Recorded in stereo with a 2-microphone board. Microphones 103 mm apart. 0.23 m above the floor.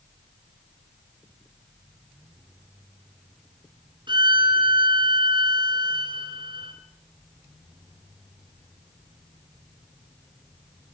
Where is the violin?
50° right (ahead or behind), 3 m.